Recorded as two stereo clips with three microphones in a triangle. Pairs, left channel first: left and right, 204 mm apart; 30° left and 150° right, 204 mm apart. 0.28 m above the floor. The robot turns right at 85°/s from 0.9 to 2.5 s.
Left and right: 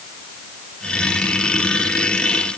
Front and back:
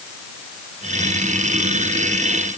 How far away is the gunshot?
No gunshot in this recording.